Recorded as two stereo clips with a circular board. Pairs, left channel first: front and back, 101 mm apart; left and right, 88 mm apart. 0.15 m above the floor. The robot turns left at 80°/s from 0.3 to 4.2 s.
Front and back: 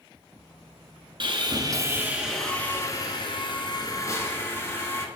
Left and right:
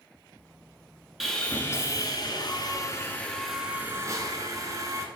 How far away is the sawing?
About 1.3 m.